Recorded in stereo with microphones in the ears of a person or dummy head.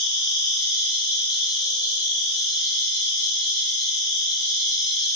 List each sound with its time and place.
0.0 s an insect: 20° left (ahead or behind), 0.9 m